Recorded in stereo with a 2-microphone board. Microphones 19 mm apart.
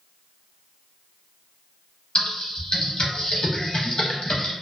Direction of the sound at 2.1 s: 45° left (ahead or behind).